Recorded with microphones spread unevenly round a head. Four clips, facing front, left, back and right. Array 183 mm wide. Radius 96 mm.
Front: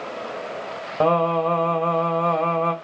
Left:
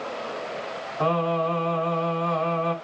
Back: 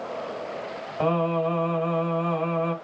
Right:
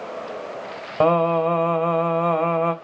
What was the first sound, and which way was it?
Singing, 45° right.